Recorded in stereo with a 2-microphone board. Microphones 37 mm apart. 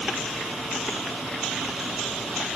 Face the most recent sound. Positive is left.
No sound to turn to.